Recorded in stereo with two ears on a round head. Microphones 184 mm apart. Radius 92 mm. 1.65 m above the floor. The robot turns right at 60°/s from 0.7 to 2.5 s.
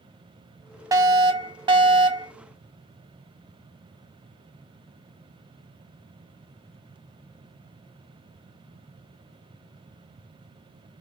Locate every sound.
0.9 s a fire alarm: 15° right (ahead or behind), 0.6 m